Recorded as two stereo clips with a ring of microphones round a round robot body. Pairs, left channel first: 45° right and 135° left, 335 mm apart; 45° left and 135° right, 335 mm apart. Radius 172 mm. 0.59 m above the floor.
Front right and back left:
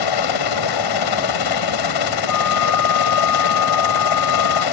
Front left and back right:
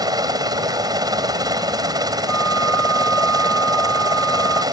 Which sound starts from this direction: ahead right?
A helicopter, at 0.0 s.